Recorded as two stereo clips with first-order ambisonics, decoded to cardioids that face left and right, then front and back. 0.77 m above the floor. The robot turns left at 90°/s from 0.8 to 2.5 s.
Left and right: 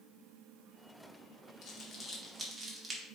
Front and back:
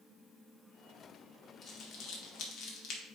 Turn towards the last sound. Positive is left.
turn(degrees=-20)